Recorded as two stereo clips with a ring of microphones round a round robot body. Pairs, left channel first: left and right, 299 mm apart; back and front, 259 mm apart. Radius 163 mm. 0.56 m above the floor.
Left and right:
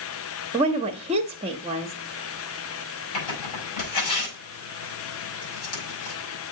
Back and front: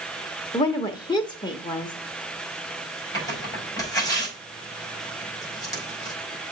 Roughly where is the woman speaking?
Behind right.